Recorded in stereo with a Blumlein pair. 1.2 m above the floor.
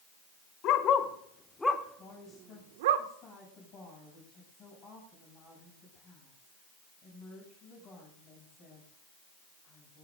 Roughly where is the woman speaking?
Ahead left.